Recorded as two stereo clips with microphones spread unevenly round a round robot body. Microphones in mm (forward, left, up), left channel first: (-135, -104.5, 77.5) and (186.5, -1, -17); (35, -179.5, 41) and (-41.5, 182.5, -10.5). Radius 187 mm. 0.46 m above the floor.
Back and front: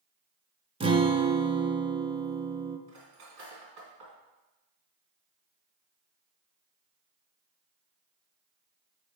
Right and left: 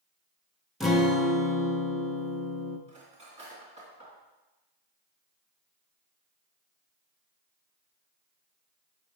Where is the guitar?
25° left, 0.6 m.